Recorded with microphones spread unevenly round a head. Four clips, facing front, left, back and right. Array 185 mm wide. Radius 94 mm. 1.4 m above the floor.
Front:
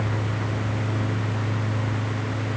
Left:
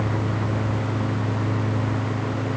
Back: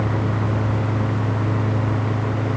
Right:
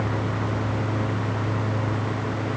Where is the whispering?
No whispering in this recording.